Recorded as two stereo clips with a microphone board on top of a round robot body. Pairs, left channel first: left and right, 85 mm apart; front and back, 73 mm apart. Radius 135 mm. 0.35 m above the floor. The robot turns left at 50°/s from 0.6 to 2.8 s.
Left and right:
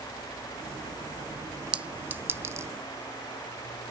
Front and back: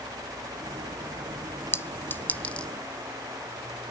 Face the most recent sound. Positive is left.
turn(degrees=-75)